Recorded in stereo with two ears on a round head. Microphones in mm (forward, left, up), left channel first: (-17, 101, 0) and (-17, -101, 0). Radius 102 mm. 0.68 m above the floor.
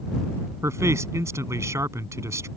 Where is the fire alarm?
No fire alarm in this recording.